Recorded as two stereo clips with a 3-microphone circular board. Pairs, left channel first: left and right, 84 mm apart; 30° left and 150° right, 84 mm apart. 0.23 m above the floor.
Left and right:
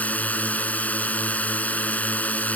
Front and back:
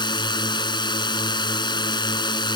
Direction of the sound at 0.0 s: 20° left.